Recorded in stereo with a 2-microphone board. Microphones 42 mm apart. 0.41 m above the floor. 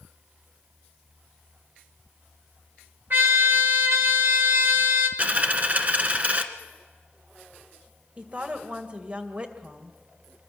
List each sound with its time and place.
3.1 s a trumpet: 55° right (ahead or behind), 2.5 m
5.2 s a dropped coin: 35° right (ahead or behind), 1.5 m
8.2 s a woman speaking: 30° right (ahead or behind), 2 m